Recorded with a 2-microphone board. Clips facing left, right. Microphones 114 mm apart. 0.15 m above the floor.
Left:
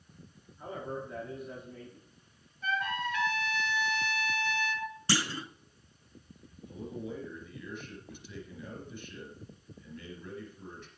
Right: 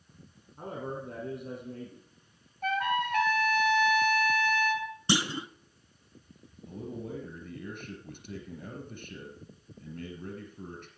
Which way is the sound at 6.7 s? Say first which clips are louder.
Right 1 dB; 55° right (ahead or behind).